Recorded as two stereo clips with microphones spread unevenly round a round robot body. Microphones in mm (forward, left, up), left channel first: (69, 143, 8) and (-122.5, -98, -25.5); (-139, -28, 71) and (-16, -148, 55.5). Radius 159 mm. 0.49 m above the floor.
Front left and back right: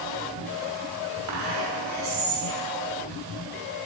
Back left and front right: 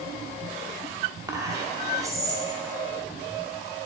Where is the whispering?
105° right, 1.0 m.